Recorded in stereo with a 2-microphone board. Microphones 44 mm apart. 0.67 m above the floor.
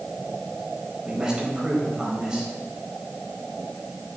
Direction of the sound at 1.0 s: 15° right (ahead or behind).